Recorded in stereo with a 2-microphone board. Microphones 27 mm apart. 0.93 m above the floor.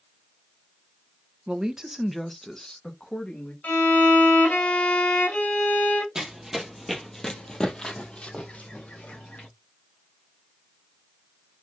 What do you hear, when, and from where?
1.5 s a woman speaking: 30° right (ahead or behind), 0.6 m; by 3.5 s 35° left (ahead or behind), 1.2 m
3.6 s a violin: 70° left (ahead or behind), 1.9 m
6.2 s running footsteps: 15° right (ahead or behind), 1.2 m; by 9.5 s 60° left (ahead or behind), 2 m